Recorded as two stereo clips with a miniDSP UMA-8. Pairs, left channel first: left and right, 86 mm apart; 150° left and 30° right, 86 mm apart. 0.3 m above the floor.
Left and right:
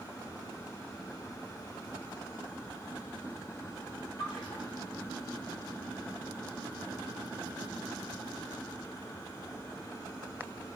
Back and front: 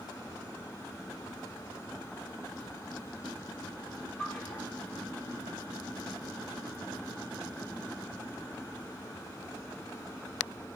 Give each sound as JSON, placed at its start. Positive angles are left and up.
{"t": 4.2, "sound": "a splash", "azimuth_deg": 75, "distance_m": 6.0}